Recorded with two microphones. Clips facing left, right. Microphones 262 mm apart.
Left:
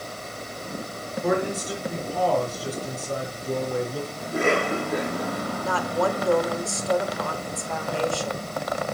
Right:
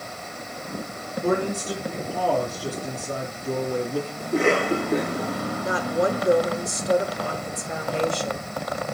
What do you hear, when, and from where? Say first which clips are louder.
1.2 s a man speaking: right 1 dB; 30° right (ahead or behind), 4 m
4.2 s a cough: right 2 dB; 30° right (ahead or behind), 5 m
5.6 s a woman speaking: right 2 dB; 20° right (ahead or behind), 0.9 m